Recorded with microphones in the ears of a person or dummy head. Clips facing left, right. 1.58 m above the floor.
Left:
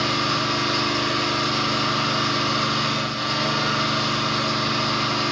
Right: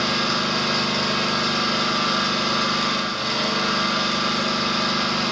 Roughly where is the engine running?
Centre.